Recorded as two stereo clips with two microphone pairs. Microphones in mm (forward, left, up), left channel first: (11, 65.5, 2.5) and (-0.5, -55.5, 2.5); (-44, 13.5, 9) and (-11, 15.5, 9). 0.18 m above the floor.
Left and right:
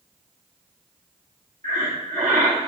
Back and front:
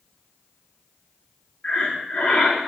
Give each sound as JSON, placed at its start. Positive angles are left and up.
{"t": 1.6, "sound": "breathing", "azimuth_deg": -100, "distance_m": 4.5}